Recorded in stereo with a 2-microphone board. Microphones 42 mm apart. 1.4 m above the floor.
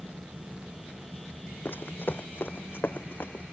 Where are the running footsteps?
55° left (ahead or behind); by 3.4 s 60° left (ahead or behind).